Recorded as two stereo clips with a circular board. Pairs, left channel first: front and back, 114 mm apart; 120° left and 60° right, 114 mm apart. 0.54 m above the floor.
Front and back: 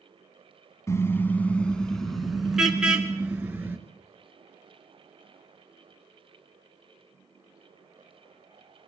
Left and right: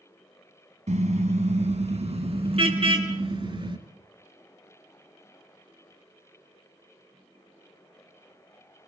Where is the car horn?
65° right, 2 m; by 3.8 s 105° right, 4 m.